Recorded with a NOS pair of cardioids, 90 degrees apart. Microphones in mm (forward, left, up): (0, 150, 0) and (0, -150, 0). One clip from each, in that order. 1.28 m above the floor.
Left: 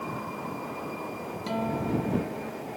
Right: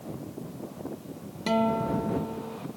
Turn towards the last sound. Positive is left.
turn(degrees=-55)